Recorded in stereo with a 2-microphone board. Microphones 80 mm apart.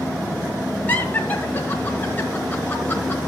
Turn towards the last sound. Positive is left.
turn(degrees=25)  # may be behind; listen again after turning